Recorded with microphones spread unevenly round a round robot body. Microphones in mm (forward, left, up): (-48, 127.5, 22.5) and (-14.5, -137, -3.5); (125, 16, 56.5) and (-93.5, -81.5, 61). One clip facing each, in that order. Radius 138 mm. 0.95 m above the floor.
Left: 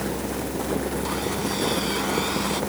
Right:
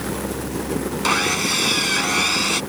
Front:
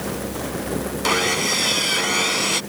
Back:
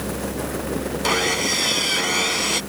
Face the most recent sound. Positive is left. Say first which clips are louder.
# right 2 dB, even
turn(degrees=-65)